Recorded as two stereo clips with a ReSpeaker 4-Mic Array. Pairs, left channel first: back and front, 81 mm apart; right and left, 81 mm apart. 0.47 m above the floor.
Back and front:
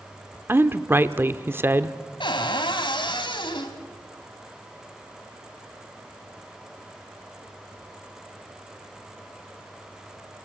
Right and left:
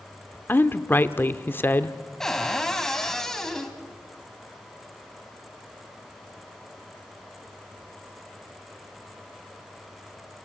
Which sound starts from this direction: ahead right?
A woman speaking, at 0.5 s.